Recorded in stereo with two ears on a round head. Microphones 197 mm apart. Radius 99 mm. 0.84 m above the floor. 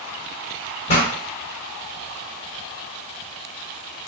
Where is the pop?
30° left (ahead or behind), 1.7 m.